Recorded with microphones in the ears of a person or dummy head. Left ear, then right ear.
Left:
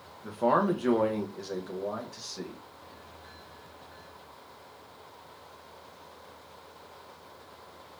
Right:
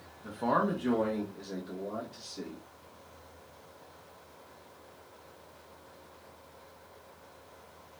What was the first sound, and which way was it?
A man speaking, 10° left (ahead or behind).